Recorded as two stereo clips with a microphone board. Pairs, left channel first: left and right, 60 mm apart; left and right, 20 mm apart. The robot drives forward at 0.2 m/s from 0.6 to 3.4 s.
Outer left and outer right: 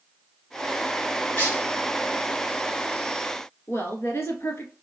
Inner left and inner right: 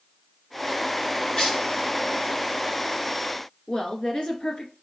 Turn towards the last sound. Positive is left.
turn(degrees=50)  # may be behind; listen again after turning